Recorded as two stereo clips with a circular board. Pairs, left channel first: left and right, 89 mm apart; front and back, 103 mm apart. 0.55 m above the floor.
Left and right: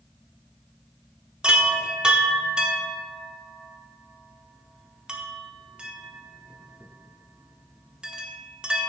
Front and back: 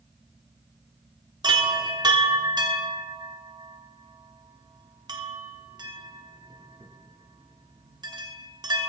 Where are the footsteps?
No footsteps in this recording.